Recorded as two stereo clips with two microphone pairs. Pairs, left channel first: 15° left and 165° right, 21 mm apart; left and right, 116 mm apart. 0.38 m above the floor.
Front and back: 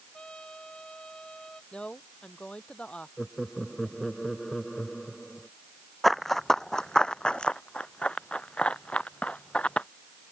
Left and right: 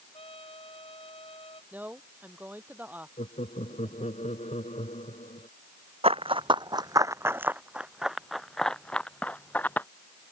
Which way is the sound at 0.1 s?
60° left.